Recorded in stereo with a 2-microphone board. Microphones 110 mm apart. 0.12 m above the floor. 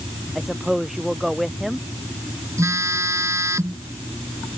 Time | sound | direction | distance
0.3 | a woman speaking | 5° right (ahead or behind) | ?
2.6 | a phone buzzing | 25° right (ahead or behind) | ?